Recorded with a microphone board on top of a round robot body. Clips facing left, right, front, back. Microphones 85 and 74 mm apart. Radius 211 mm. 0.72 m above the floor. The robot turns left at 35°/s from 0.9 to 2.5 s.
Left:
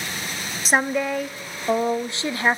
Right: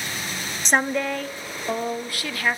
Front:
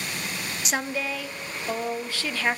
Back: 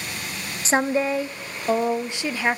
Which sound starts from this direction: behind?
A woman speaking, at 0.7 s.